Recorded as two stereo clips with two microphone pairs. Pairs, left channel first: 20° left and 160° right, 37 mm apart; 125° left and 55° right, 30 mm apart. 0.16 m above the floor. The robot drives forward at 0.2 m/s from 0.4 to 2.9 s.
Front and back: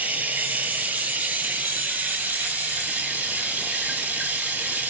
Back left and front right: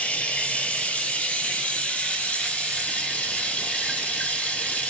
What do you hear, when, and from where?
0.0 s running water: 170° left, 1.1 m; by 4.9 s 175° left, 1.6 m